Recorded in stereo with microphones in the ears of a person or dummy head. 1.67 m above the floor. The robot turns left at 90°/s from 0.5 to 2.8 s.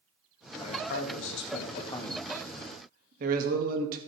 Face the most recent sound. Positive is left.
turn(degrees=-55)